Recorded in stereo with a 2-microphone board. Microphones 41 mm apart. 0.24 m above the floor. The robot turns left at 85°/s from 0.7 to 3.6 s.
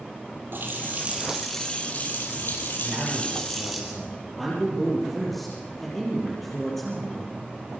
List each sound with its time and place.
0.5 s a running tap: 115° right, 4.5 m; by 3.8 s 5° right, 4.5 m
2.8 s a man speaking: 120° right, 6.5 m; by 7.3 s 175° left, 6.5 m